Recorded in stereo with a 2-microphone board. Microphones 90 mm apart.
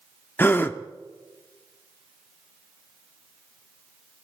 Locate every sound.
0.4 s a gasp: 25° left (ahead or behind), 0.7 m